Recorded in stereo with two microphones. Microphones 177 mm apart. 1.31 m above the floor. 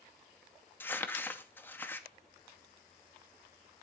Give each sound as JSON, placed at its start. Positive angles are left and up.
{"t": 0.8, "sound": "crumpling", "side_deg": 10, "distance_m": 0.7}